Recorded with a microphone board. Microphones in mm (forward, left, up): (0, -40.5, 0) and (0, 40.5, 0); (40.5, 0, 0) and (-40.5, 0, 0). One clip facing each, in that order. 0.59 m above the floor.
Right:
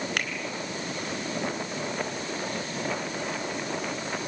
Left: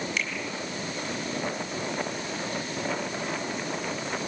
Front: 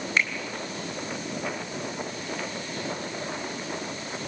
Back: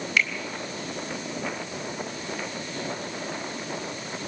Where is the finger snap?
60° right, 3.5 m.